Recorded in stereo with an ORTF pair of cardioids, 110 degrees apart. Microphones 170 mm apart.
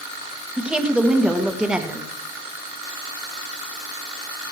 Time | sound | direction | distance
0.6 | a woman speaking | 5° right | 2 m